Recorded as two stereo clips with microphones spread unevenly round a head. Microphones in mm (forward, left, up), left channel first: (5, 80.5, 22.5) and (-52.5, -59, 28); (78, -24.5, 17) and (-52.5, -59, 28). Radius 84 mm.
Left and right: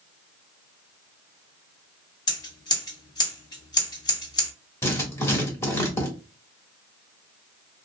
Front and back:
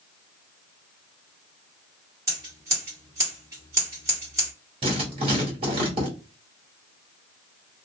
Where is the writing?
140° left, 1.6 m.